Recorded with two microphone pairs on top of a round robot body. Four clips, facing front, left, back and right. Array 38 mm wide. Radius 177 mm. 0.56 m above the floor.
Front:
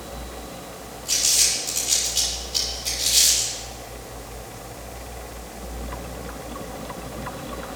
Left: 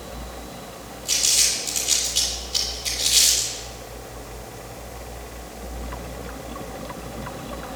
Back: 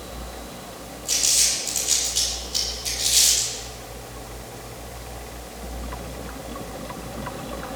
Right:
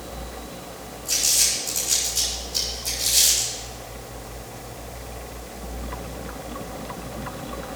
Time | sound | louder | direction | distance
1.1 | crumpling | left 2 dB, front 1 dB | 90° left | 8.5 m